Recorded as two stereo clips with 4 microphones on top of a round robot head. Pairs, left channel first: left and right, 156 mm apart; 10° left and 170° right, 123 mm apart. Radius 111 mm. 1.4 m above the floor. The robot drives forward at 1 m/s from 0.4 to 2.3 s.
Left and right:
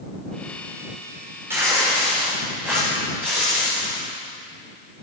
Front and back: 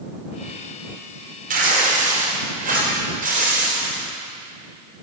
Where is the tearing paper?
170° right, 3 m.